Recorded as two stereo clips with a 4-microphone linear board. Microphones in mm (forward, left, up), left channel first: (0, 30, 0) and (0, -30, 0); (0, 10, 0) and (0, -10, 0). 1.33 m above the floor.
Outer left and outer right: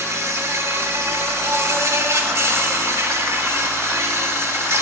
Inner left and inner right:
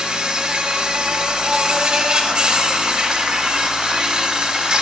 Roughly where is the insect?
Right.